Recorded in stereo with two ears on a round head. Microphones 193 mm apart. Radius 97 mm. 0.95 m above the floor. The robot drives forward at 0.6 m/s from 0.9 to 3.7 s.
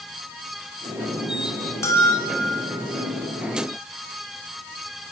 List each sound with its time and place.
1.8 s a bell: 15° left (ahead or behind), 2.5 m